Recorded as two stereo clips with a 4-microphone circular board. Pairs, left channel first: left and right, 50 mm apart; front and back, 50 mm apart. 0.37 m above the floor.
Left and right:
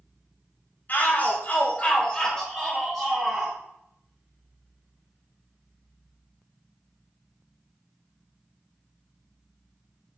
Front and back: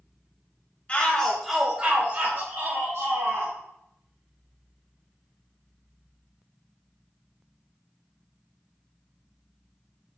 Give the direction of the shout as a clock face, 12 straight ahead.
10 o'clock.